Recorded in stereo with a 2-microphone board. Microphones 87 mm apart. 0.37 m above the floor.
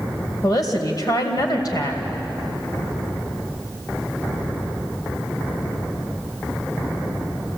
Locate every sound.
0.4 s a woman speaking: 50° left (ahead or behind), 2 m